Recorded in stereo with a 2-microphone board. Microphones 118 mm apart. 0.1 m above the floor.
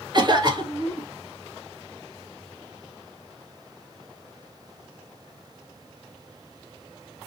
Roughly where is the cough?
Right.